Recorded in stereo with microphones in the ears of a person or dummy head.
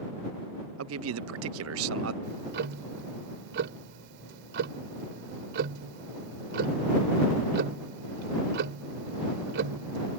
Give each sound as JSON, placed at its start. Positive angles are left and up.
{"t": 0.8, "sound": "a man speaking", "side_deg": -65}
{"t": 2.2, "sound": "ticking", "side_deg": -65}